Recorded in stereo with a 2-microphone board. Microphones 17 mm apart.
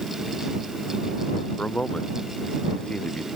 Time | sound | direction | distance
1.6 | a man speaking | 80° left | ?